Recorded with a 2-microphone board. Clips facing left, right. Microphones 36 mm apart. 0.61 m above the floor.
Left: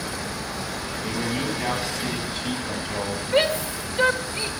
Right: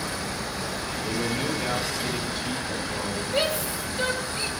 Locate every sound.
1.0 s a man speaking: 65° left (ahead or behind), 5 m; by 3.2 s 50° left (ahead or behind), 3 m
3.3 s a shout: 45° left (ahead or behind), 2.5 m